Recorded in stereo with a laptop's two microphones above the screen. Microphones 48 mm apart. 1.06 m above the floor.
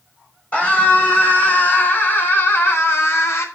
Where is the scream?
25° left (ahead or behind), 5 m; by 3.5 s 65° left (ahead or behind), 3.5 m.